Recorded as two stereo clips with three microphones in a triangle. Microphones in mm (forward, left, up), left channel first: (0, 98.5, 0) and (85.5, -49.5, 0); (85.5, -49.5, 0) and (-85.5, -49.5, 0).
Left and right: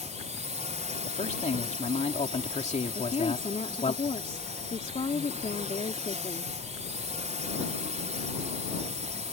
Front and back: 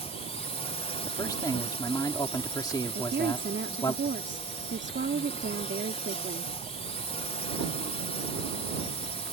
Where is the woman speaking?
170° left.